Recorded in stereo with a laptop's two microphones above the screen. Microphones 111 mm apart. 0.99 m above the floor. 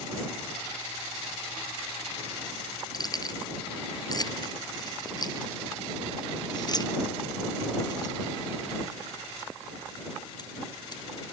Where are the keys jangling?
35° left (ahead or behind).